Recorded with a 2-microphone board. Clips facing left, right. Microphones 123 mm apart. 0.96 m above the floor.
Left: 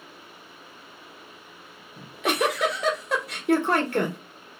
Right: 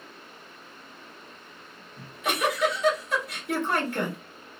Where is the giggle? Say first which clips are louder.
Left 4 dB; 75° left (ahead or behind), 1.0 m.